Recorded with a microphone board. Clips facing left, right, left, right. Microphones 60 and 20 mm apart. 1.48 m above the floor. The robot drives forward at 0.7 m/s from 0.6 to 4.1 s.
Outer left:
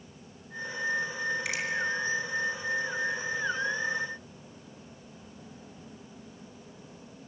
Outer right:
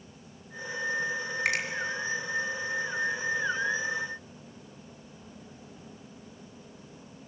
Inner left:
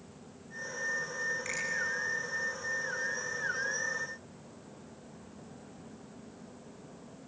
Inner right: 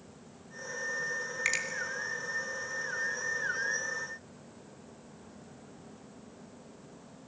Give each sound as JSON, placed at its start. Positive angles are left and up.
{"t": 1.4, "sound": "a finger snap", "side_deg": -60, "distance_m": 3.0}